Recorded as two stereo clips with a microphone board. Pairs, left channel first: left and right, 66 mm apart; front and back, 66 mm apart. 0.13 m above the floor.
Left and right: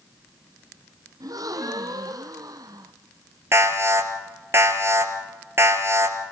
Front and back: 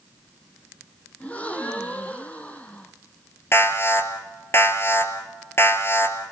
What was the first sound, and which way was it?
A gasp, 70° right.